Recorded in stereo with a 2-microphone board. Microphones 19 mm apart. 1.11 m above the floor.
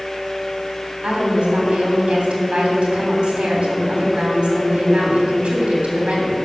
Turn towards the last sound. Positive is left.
turn(degrees=-75)  # may be behind; listen again after turning